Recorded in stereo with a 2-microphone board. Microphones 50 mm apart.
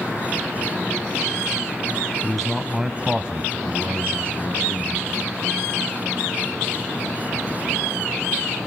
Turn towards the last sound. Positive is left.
turn(degrees=-55)  # may be behind; listen again after turning